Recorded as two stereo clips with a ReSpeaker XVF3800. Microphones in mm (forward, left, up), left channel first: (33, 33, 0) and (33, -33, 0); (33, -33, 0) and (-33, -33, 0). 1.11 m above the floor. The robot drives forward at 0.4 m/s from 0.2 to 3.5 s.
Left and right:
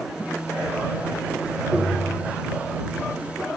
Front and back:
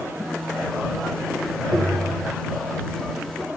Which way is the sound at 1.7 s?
170° left.